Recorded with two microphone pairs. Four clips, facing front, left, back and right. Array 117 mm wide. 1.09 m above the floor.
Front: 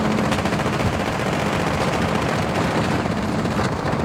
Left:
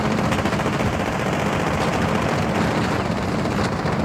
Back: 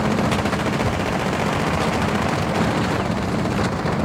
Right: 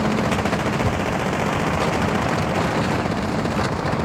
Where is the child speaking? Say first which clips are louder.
Even, even; 75° right, 3.5 m; by 4.0 s 105° right, 4 m.